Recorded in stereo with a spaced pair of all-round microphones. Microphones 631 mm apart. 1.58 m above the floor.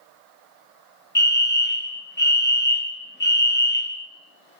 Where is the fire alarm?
15° left (ahead or behind), 0.8 m.